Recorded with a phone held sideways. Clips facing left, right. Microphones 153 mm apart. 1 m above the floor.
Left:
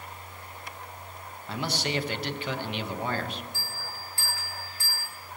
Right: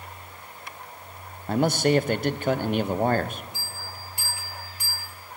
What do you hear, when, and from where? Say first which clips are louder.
1.5 s a man speaking: right 10 dB; 45° right (ahead or behind), 0.6 m
3.5 s a bell: even; 20° right (ahead or behind), 3.5 m